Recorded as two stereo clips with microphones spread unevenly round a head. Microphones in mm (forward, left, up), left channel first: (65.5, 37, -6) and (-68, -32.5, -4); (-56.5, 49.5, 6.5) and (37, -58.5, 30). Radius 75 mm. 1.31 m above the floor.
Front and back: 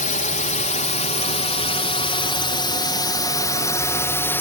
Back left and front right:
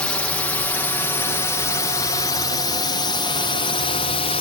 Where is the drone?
55° left; by 4.4 s 100° left.